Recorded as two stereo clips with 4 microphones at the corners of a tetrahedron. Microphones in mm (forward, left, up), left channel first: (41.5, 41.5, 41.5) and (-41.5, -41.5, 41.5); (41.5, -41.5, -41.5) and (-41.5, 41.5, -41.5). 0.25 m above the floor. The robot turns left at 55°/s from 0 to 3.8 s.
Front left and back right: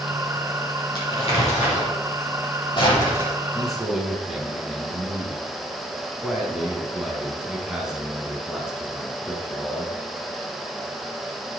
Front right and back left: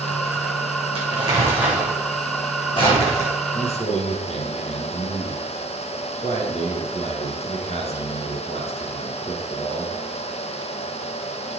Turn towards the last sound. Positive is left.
turn(degrees=-50)